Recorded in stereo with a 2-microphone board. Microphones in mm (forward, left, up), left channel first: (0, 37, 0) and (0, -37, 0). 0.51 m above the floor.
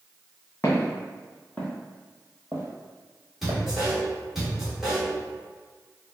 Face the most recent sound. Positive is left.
turn(degrees=-5)  # may be behind; listen again after turning